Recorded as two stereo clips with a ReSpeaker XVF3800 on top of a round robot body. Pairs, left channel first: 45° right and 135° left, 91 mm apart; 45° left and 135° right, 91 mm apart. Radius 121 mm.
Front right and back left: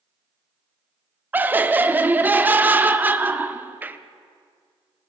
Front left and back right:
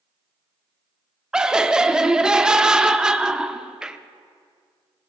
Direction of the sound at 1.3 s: 160° left.